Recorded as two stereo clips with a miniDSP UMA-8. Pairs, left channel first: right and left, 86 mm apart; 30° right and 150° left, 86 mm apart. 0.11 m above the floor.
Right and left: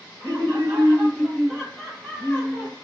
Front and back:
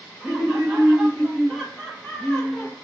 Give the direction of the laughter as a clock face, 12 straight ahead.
9 o'clock.